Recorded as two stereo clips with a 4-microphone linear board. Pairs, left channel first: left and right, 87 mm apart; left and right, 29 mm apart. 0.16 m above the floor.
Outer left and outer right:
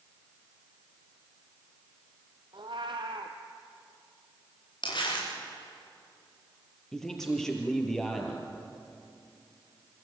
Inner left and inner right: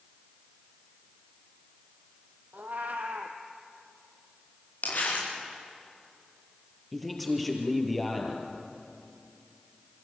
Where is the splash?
I don't hear a splash.